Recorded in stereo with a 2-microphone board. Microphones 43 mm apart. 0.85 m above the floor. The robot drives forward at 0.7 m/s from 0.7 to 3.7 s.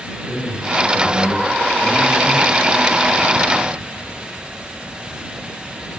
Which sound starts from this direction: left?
A man speaking, at 0.3 s.